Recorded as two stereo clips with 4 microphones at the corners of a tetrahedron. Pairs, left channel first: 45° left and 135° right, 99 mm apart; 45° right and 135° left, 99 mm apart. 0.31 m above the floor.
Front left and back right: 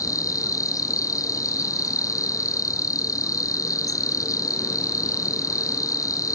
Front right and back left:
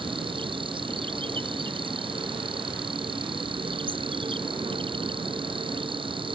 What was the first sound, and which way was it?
An insect, 100° left.